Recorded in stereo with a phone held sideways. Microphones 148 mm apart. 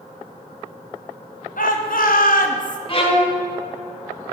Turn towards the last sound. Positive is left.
turn(degrees=40)  # may be behind; listen again after turning